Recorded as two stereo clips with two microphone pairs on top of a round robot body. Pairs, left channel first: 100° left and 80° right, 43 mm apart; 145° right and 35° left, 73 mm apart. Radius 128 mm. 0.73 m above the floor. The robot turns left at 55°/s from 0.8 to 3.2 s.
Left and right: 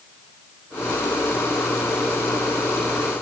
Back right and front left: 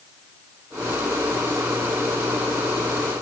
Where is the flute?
No flute in this recording.